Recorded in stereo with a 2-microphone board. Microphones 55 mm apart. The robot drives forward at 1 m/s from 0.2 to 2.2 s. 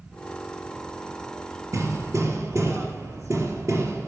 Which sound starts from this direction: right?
Hammering, at 1.7 s.